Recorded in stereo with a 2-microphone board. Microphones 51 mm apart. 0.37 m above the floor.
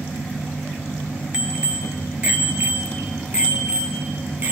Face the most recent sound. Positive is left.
turn(degrees=-30)  # may be behind; listen again after turning